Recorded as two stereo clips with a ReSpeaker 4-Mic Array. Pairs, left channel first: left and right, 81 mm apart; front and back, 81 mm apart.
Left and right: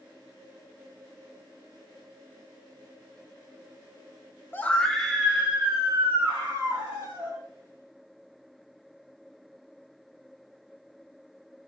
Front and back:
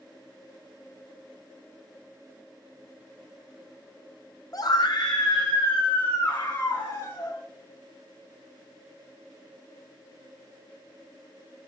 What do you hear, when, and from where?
4.5 s a scream: 30° left, 0.5 m; by 7.4 s 35° right, 2 m